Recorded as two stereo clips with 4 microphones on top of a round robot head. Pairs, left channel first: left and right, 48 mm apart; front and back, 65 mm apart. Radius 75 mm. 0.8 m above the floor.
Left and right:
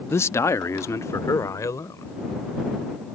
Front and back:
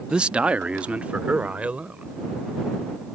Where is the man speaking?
105° left.